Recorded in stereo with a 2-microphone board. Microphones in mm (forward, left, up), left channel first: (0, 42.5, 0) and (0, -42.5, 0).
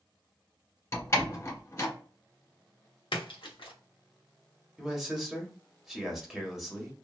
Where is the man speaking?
5° right (ahead or behind), 1.1 m.